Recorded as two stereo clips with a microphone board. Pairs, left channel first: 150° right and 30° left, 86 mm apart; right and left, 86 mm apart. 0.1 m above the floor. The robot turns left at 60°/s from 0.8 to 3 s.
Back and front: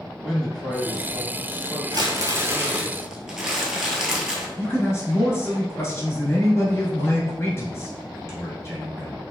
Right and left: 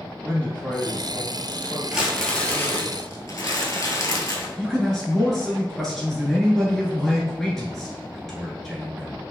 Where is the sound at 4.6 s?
170° right, 1.2 m.